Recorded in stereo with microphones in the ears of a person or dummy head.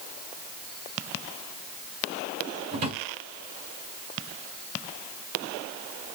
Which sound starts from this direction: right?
A drawer, at 2.7 s.